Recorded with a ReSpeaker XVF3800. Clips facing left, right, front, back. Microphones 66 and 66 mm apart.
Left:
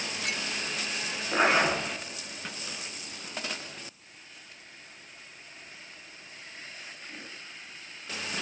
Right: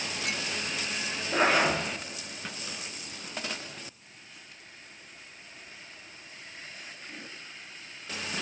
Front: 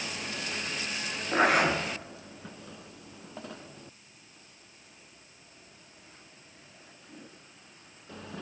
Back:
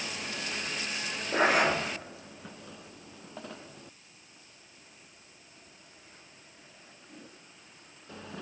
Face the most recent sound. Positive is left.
turn(degrees=25)